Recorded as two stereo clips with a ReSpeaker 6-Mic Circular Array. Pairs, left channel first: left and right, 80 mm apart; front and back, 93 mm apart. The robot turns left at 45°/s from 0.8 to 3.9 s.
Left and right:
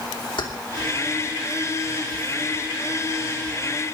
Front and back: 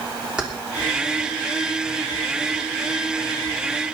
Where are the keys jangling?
100° left, 3 m.